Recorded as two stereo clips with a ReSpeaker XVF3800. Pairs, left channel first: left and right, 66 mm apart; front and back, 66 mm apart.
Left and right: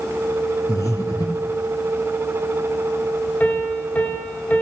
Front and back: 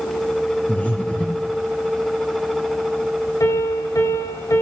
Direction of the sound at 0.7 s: 65° left.